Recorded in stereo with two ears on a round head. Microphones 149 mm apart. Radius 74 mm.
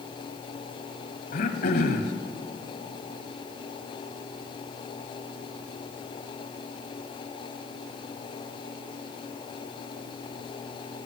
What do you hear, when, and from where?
1.3 s throat clearing: 60° left (ahead or behind), 1.5 m